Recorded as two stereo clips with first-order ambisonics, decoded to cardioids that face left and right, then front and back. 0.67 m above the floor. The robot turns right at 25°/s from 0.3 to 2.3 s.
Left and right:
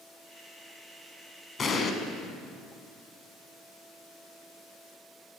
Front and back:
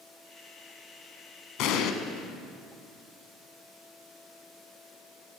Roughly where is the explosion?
Ahead left.